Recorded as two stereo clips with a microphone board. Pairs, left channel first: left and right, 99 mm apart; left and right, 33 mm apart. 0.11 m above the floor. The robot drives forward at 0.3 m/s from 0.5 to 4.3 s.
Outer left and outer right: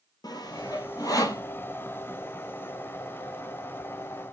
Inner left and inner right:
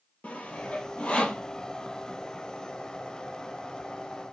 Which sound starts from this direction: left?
Sawing, at 0.2 s.